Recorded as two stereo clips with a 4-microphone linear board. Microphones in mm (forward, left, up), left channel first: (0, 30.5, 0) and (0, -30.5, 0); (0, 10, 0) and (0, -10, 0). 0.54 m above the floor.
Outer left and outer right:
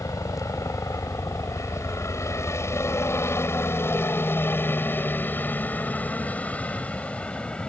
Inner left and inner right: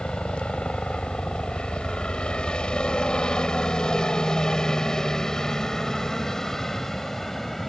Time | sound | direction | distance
0.0 | a helicopter | 60° left (ahead or behind) | ?